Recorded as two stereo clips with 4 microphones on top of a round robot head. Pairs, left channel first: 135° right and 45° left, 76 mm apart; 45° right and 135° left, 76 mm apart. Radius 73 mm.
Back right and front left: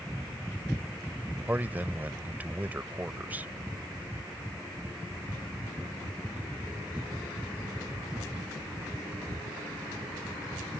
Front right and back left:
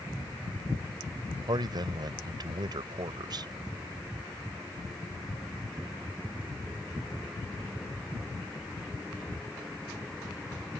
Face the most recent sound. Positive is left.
turn(degrees=110)